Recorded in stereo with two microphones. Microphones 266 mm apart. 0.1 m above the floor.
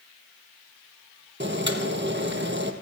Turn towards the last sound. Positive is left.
turn(degrees=-45)  # may be behind; listen again after turning